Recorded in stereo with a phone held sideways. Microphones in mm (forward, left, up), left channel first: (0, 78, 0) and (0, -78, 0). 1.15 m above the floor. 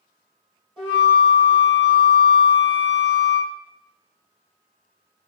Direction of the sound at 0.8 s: 30° right (ahead or behind).